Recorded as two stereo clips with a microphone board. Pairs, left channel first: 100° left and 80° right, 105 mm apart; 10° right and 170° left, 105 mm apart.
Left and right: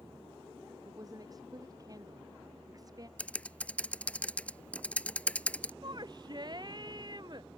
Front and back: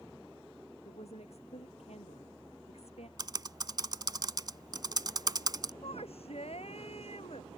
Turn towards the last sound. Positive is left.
turn(degrees=-30)